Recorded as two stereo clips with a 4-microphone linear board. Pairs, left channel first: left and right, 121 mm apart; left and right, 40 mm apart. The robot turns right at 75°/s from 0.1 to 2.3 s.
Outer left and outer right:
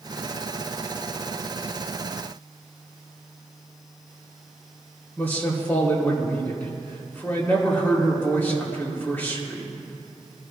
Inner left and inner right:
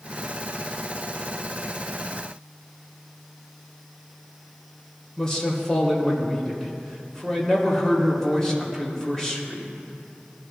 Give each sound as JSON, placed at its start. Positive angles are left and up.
{"t": 5.2, "sound": "a man speaking", "side_deg": 15, "distance_m": 2.5}